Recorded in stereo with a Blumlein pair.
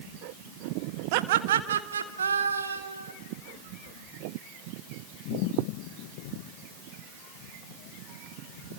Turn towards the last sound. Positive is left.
turn(degrees=-80)